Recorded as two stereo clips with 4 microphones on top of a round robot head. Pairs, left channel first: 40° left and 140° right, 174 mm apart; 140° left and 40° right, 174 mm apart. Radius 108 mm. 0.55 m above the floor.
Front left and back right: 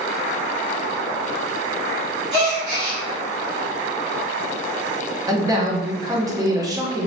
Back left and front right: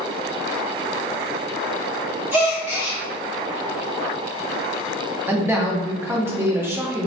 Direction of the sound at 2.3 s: 120° right.